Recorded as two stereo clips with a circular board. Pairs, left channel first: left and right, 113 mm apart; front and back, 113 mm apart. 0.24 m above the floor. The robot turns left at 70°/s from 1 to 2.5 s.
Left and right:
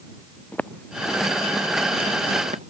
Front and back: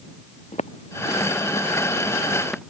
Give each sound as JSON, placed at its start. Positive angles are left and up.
{"t": 0.5, "sound": "footsteps", "azimuth_deg": 15}